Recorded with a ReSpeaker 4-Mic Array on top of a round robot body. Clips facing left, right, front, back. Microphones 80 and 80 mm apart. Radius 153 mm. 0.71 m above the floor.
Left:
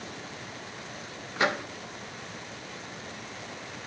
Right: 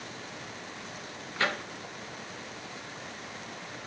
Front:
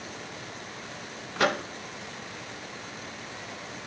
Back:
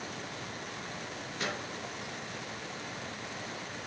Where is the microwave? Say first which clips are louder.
Left 4 dB, front 12 dB; 20° left, 1.1 m.